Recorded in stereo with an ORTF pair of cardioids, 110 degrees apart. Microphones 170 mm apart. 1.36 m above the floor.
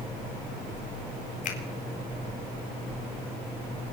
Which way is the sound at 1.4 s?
50° left.